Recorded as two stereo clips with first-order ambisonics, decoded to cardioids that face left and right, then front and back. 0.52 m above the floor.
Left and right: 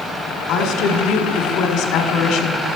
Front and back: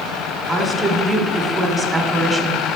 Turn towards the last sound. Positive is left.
turn(degrees=110)